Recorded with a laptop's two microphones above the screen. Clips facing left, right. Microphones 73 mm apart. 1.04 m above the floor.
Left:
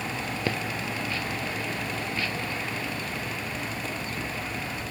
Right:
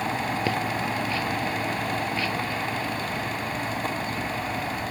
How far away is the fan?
About 0.8 m.